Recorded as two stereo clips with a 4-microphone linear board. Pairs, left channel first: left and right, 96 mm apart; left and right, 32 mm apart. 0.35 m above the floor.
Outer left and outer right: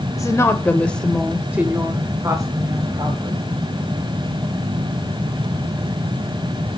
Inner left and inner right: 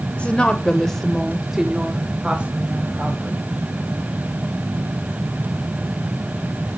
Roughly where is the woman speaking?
Left.